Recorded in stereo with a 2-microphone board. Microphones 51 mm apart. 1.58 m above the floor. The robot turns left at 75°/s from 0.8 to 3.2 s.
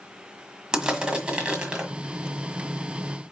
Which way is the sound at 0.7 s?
15° right (ahead or behind).